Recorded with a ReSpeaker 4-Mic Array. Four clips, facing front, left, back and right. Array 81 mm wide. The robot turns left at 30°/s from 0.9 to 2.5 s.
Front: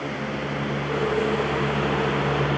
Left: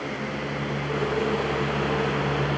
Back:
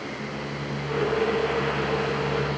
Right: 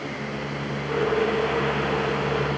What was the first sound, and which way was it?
Only background noise.